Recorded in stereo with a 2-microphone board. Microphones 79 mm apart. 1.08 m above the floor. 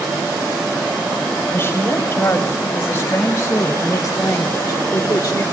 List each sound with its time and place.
1.5 s a woman speaking: 30° left (ahead or behind), 5.5 m; by 5.4 s 45° left (ahead or behind), 3.5 m